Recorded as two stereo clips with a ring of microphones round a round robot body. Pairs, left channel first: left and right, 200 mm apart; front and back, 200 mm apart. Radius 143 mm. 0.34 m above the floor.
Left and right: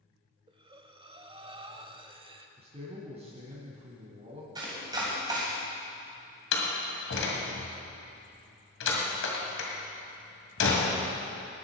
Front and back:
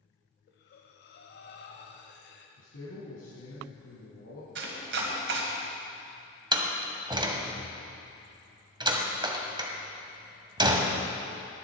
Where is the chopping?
160° right, 2.0 m.